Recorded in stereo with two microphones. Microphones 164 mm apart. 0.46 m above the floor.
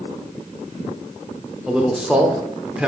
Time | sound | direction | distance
1.7 | a man speaking | 5° right (ahead or behind) | 0.9 m